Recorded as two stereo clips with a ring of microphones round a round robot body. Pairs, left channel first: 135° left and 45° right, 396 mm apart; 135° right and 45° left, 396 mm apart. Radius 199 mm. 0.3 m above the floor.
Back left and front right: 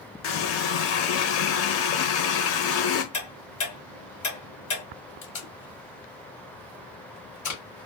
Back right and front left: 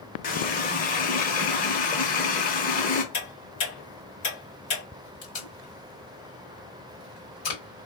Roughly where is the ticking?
Behind.